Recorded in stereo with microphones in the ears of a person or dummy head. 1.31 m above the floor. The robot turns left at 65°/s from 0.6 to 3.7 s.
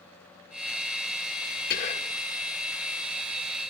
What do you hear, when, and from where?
1.7 s whispering: 50° left (ahead or behind), 1.9 m; by 2.2 s 20° left (ahead or behind), 1.9 m